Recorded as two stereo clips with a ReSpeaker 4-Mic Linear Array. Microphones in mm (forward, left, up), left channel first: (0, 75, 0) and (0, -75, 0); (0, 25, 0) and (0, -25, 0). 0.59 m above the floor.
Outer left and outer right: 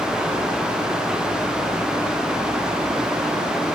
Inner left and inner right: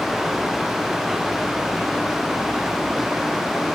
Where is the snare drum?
I don't hear a snare drum.